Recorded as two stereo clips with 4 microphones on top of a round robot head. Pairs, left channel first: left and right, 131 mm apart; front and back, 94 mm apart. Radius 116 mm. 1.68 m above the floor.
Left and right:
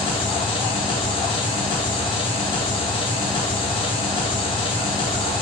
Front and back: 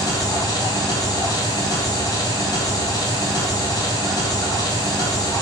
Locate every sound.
0.0 s an engine running: 45° left, 1.8 m